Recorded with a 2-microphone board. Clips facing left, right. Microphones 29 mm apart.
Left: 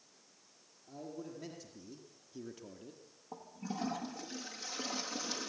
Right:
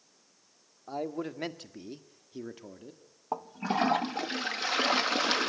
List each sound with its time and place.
0.9 s a man speaking: 85° right, 2 m; by 3.0 s 15° right (ahead or behind), 1.9 m
3.3 s a toilet flushing: 65° right (ahead or behind), 0.8 m